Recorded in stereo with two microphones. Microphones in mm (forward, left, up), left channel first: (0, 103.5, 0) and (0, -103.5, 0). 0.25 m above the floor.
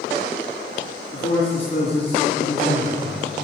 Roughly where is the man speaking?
Left.